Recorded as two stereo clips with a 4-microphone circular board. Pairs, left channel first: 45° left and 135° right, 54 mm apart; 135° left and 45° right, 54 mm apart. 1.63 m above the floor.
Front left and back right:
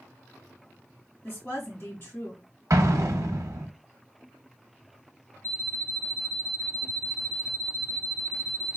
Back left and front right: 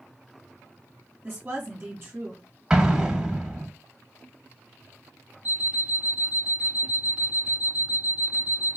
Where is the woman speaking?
Straight ahead, 1.7 m.